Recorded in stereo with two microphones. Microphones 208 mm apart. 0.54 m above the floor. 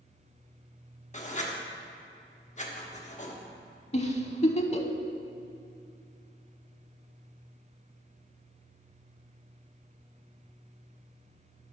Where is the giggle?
35° left (ahead or behind), 0.6 m.